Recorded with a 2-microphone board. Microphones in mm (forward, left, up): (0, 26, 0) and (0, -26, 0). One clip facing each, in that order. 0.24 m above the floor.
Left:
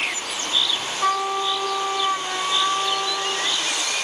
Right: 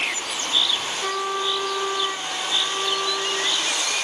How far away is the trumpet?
About 2.5 m.